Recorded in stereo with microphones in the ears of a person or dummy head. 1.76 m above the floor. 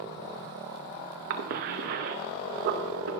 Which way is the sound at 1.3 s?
45° right (ahead or behind).